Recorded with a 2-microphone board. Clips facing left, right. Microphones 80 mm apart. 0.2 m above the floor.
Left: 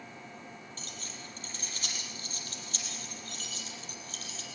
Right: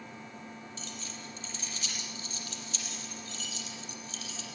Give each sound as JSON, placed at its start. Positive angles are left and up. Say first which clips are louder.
{"t": 0.8, "sound": "keys jangling", "louder": "right 2 dB", "side_deg": 45, "distance_m": 5.0}